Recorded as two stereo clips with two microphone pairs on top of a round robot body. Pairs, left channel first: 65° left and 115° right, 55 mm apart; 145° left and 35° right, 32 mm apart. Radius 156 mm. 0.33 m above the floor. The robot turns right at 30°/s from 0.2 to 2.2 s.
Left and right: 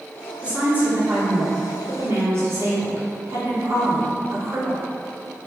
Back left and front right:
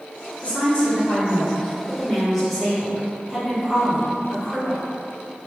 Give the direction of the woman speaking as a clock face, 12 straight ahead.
6 o'clock.